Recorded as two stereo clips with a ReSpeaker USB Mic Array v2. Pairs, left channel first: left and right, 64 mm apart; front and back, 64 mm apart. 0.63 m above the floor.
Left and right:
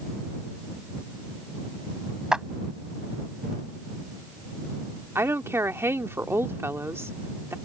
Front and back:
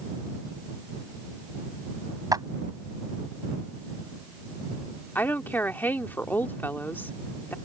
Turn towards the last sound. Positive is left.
turn(degrees=-50)